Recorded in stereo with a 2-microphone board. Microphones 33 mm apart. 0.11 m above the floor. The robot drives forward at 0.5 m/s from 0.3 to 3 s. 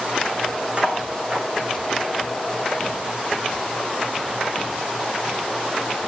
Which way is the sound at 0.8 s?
40° right (ahead or behind).